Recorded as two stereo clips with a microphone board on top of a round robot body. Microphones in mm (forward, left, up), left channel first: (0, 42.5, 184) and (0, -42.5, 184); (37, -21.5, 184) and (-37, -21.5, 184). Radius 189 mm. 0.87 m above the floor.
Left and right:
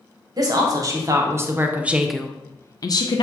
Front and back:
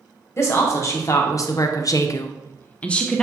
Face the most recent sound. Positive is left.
turn(degrees=80)